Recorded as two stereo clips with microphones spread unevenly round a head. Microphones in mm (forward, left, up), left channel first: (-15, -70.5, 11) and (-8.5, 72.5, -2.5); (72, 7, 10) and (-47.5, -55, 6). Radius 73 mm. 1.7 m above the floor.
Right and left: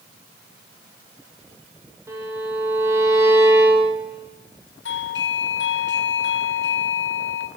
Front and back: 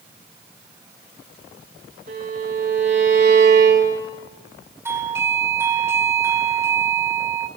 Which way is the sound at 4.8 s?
80° right.